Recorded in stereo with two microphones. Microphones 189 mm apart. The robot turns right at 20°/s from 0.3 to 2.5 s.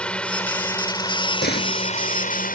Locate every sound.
0.0 s a drone: 5° left; by 2.5 s 50° left
1.4 s a door slam: 65° left (ahead or behind); by 1.8 s 55° left (ahead or behind)